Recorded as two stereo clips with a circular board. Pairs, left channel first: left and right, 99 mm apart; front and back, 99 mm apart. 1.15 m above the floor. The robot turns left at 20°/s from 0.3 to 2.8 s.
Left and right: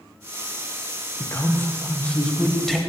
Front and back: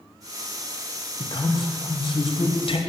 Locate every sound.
1.2 s a man speaking: 35° left, 0.6 m; by 2.8 s straight ahead, 0.6 m